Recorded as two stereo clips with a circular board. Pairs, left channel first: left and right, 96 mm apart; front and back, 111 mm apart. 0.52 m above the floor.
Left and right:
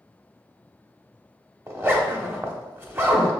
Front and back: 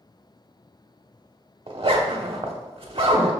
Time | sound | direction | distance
1.7 | a zipper | 155° right | 0.6 m